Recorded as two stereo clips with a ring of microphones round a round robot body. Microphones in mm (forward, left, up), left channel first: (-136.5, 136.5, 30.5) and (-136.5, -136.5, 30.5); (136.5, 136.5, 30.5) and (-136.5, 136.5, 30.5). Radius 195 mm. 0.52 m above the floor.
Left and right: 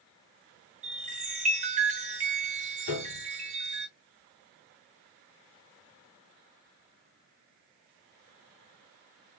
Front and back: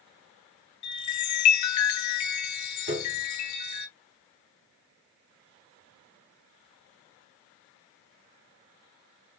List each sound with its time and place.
0.8 s a chime: 20° right, 1.3 m
2.9 s a piano: 130° left, 4 m